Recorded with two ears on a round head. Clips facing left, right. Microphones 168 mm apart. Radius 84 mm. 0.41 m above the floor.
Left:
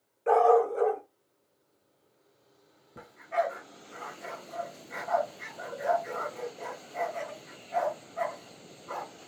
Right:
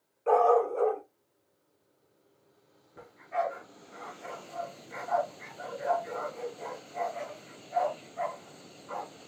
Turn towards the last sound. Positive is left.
turn(degrees=60)  # may be behind; listen again after turning